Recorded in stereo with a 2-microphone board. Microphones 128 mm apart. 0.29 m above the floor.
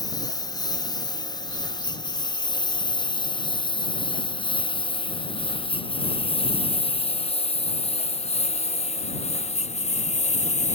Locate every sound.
0.0 s a lawn mower: 30° left (ahead or behind); by 10.8 s 65° left (ahead or behind)